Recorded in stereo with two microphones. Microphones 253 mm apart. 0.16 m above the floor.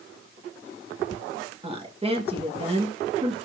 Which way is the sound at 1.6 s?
25° right (ahead or behind).